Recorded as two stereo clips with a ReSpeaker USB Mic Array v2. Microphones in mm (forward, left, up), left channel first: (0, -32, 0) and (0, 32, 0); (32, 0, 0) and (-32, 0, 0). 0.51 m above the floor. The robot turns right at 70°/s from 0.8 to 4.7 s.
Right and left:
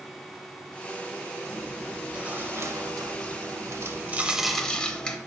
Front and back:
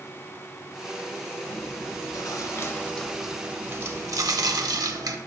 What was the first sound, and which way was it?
Chewing, 35° right.